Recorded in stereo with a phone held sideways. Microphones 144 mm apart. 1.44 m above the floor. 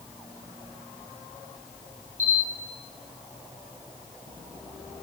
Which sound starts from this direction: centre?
A camera shutter, at 2.2 s.